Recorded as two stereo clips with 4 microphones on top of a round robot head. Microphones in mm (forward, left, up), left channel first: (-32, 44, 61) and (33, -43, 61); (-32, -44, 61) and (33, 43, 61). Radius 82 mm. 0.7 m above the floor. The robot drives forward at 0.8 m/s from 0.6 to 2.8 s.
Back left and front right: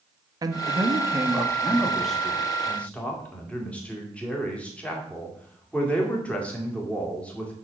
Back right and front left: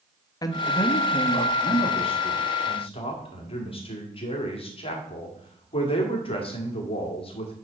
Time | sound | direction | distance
0.4 | a man speaking | 90° right | 1.2 m